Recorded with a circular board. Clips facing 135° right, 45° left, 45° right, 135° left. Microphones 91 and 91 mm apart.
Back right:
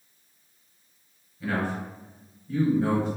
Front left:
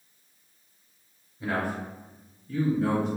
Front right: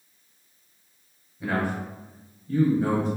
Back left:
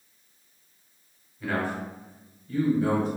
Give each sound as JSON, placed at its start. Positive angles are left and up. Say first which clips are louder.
{"t": 1.4, "sound": "a man speaking", "louder": "back right 1 dB, front right 2 dB", "azimuth_deg": 15, "distance_m": 1.0}